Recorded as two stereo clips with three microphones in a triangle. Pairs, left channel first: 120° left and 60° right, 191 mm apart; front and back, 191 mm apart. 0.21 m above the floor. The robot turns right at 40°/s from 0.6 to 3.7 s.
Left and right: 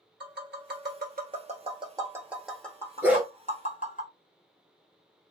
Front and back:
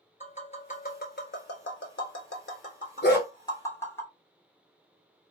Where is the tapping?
45° right, 0.8 m; by 4.0 s 75° left, 0.8 m.